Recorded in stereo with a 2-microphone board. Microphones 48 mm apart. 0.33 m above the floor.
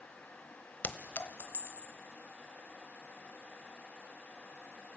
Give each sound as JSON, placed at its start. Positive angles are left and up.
{"t": 0.8, "sound": "a clink", "side_deg": 45, "distance_m": 1.0}